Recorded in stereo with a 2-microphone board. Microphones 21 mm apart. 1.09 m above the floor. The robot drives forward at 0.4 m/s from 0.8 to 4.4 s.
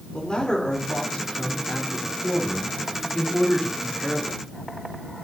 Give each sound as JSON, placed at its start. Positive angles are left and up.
{"t": 0.1, "sound": "a man speaking", "side_deg": 40, "distance_m": 3.5}